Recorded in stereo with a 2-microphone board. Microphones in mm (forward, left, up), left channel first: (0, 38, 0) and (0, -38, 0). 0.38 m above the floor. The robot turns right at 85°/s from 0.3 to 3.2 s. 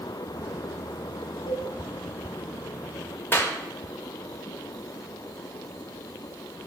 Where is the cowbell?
70° left (ahead or behind), 1.9 m; by 1.7 s 75° left (ahead or behind), 1.9 m.